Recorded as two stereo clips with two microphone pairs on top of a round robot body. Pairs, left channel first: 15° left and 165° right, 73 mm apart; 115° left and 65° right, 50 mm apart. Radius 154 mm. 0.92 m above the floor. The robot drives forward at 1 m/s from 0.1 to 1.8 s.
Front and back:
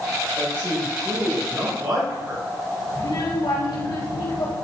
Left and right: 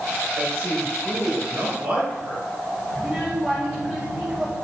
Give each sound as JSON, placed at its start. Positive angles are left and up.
{"t": 0.4, "sound": "a man speaking", "azimuth_deg": -105, "distance_m": 2.5}
{"t": 3.0, "sound": "a child speaking", "azimuth_deg": 0, "distance_m": 4.0}